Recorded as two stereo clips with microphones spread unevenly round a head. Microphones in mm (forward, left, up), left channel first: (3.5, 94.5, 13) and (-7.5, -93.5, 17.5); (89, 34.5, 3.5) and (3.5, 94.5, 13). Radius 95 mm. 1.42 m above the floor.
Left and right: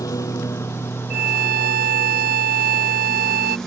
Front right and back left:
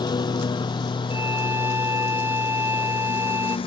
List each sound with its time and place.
0.0 s a lawn mower: 10° left; by 3.7 s straight ahead
1.1 s a violin: 135° right